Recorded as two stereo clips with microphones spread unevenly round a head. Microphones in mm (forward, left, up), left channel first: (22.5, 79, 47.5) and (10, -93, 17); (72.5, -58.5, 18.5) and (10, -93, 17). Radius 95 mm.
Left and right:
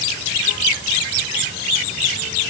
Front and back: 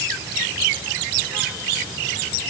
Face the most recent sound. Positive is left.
No sound to turn to.